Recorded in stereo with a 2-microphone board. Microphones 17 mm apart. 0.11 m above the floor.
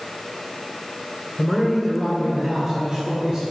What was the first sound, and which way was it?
A man speaking, 15° left (ahead or behind).